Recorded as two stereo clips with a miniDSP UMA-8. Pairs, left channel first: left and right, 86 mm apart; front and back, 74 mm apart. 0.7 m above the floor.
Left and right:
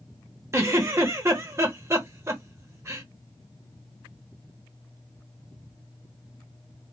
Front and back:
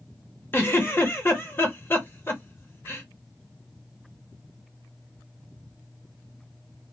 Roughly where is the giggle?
Ahead right.